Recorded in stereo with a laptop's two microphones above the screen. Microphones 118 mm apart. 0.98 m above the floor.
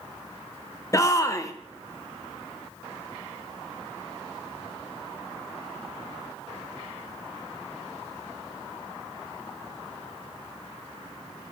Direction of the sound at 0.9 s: 25° left (ahead or behind).